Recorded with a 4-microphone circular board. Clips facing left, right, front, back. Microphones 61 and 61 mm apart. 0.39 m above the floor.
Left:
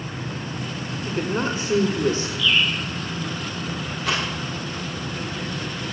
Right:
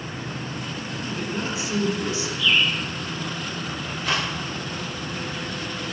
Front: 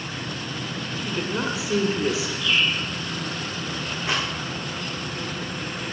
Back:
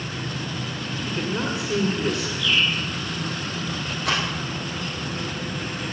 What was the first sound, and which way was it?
A woman speaking, 85° left.